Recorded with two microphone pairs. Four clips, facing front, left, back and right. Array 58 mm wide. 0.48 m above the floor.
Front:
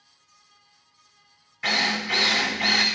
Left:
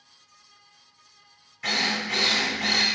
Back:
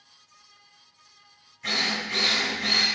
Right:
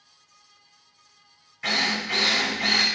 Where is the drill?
15° right, 2.5 m.